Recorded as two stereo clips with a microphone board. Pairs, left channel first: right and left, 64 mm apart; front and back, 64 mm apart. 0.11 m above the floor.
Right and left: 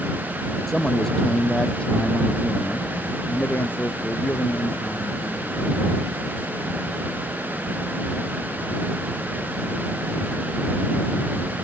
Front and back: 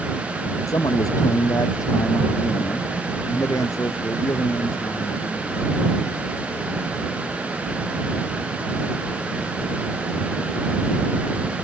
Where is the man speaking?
5° right; by 5.7 s 35° right.